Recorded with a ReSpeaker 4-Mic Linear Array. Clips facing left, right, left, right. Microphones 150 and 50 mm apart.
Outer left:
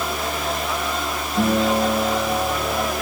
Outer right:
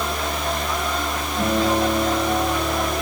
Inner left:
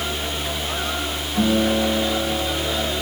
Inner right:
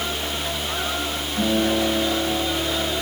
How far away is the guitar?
About 6.5 m.